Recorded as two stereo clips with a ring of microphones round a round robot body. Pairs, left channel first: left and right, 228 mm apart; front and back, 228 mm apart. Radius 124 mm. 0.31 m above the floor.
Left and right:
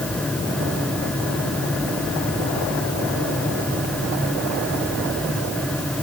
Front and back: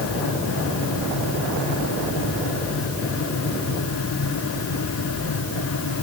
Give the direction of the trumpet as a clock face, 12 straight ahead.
No trumpet in this recording.